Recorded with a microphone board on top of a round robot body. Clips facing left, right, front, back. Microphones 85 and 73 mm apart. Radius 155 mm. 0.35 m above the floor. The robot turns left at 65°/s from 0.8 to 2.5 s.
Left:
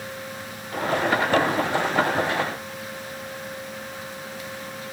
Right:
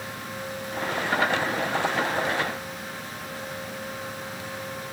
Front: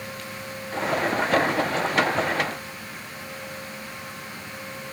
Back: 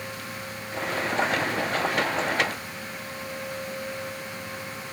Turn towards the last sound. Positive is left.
No sound to turn to.